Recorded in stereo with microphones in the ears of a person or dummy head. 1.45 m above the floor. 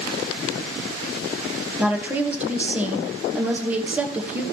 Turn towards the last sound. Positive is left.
turn(degrees=-10)  # may be behind; listen again after turning